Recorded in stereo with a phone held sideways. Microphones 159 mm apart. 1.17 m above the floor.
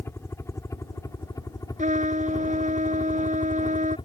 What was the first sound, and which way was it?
A helicopter, 15° left (ahead or behind).